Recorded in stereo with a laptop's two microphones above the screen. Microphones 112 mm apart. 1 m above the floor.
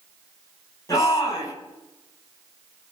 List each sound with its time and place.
0.9 s a shout: 35° left (ahead or behind), 8 m